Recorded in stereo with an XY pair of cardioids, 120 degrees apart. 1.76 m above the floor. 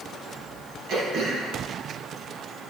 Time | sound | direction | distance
0.9 | throat clearing | 60° right | 2.5 m